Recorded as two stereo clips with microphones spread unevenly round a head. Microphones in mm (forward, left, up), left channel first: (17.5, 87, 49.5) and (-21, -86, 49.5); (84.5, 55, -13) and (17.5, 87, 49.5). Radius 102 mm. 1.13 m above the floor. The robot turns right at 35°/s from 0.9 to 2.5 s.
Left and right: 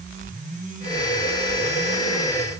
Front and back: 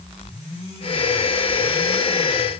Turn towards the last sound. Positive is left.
No sound to turn to.